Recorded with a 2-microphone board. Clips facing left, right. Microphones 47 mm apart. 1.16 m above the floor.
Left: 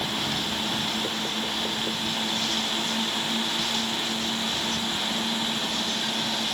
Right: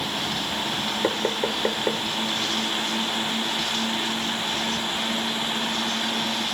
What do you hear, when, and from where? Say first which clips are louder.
1.0 s knocking: right 5 dB; 55° right (ahead or behind)